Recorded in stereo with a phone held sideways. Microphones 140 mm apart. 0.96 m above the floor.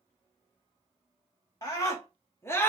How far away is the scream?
About 2.5 m.